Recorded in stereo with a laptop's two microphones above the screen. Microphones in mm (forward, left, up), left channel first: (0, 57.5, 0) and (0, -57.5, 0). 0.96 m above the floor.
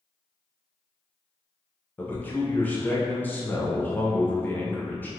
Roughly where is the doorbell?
No doorbell in this recording.